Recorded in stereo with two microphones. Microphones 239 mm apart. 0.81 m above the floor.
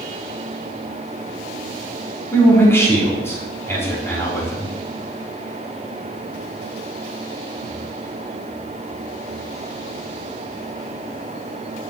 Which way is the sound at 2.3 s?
10° left (ahead or behind).